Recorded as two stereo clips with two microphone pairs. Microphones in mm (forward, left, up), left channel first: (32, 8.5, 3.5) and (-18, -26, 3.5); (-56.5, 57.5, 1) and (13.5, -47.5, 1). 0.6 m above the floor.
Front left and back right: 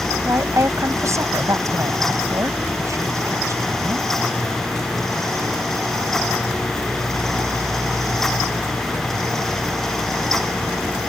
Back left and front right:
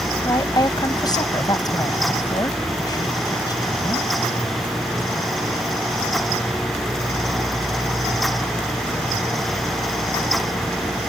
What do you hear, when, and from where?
0.2 s a woman speaking: straight behind